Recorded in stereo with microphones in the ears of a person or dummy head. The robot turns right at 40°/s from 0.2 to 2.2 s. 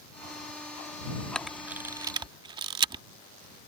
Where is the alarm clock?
I don't hear an alarm clock.